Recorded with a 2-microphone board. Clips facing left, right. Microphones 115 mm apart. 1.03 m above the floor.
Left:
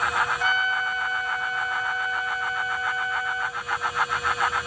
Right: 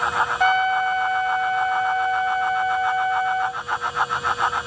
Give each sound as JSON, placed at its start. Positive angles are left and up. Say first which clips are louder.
{"t": 0.4, "sound": "a trumpet", "louder": "right 7 dB", "side_deg": -55}